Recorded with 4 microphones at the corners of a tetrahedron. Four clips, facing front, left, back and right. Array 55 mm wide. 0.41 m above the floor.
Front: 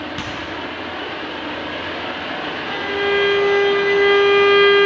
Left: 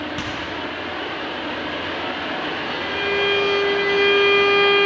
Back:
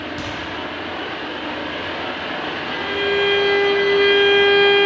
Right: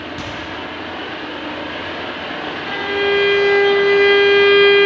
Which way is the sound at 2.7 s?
70° right.